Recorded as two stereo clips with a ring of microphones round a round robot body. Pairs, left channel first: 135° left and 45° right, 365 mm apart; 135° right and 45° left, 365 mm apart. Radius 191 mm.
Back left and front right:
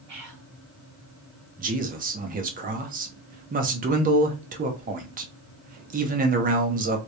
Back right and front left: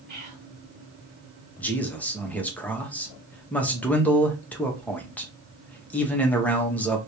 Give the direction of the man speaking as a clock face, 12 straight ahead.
2 o'clock.